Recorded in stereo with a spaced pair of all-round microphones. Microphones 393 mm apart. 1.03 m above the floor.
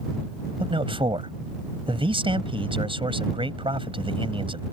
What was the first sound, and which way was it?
A man speaking, 15° right (ahead or behind).